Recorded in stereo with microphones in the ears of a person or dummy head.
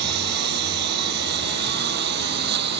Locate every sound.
0.0 s a lawn mower: 60° right (ahead or behind)